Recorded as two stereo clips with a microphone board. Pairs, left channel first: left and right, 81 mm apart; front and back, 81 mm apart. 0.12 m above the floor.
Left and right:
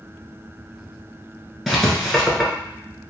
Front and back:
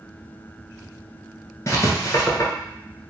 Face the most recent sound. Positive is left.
turn(degrees=0)